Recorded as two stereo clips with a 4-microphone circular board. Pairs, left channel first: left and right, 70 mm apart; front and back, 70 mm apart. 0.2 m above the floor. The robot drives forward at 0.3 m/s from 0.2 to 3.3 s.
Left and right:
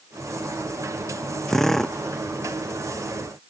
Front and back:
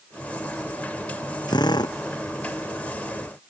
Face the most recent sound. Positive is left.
turn(degrees=5)